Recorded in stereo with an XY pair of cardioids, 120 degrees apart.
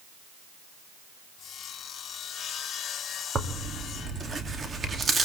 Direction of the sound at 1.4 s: 45° left.